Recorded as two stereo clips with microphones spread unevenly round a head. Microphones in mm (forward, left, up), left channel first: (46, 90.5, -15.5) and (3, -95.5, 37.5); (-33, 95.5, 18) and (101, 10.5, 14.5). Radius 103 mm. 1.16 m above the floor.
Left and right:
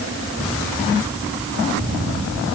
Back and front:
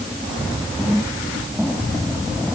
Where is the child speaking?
No child speaking in this recording.